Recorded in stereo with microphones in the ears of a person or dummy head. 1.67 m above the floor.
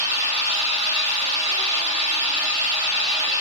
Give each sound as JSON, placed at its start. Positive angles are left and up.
{"t": 0.0, "sound": "an engine running", "side_deg": -50, "distance_m": 1.8}